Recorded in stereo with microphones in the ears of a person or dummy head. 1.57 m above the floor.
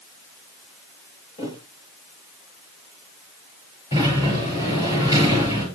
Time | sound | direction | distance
1.4 | a thud | 25° left (ahead or behind) | 9.5 m
3.9 | a sliding door | 25° left (ahead or behind) | 8 m